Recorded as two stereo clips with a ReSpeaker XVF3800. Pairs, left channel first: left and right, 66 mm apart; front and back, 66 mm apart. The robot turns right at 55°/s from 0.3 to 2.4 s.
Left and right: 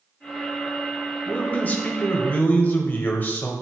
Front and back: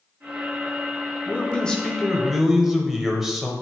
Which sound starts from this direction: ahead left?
A man speaking, at 1.3 s.